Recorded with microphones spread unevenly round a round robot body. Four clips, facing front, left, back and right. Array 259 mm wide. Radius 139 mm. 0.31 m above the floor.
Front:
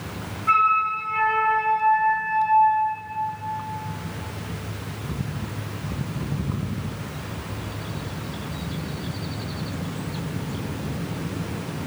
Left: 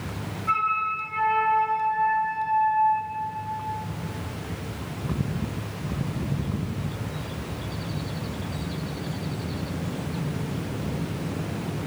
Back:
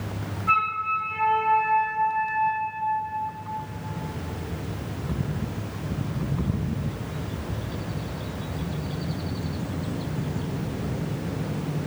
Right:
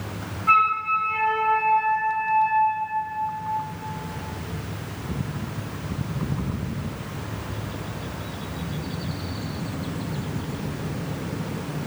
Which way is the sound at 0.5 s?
60° right.